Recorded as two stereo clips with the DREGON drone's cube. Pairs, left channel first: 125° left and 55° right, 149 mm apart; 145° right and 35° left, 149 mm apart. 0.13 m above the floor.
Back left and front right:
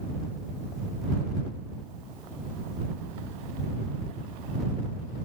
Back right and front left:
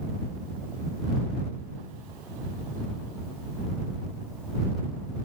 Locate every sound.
Only background noise.